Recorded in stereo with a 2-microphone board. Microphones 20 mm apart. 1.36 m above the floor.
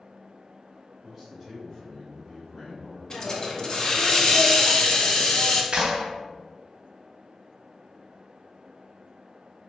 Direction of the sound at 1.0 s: 10° right (ahead or behind).